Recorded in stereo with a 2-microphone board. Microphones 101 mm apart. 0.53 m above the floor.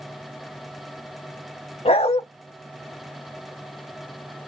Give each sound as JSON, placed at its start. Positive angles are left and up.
{"t": 1.9, "sound": "a dog barking", "side_deg": 75, "distance_m": 0.8}